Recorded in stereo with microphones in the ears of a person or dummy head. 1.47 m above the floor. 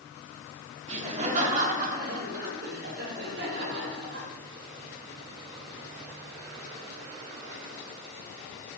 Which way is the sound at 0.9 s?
35° right (ahead or behind).